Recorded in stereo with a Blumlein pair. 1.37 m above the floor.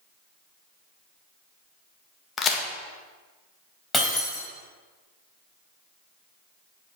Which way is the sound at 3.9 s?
10° left.